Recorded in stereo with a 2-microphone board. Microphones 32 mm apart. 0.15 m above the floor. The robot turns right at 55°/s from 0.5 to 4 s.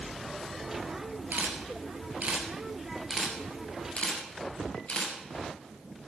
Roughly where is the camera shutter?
Right.